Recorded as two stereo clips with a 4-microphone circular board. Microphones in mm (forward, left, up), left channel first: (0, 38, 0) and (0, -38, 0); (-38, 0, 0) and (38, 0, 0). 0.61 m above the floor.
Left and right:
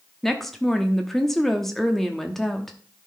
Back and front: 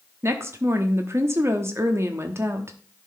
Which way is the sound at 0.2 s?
5° left.